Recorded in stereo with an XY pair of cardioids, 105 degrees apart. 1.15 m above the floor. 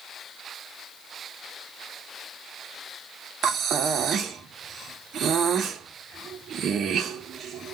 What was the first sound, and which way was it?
Breathing, 60° right.